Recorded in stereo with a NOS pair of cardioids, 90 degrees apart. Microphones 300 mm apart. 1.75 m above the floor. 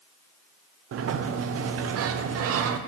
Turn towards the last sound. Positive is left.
turn(degrees=-50)